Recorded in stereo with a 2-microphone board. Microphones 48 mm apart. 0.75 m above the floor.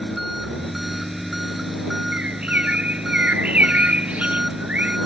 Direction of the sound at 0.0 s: Centre (ahead or behind).